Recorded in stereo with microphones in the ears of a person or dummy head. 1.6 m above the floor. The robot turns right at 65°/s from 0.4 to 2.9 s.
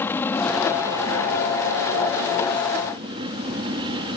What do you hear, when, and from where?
0.0 s an aircraft: 175° left; by 4.2 s 20° right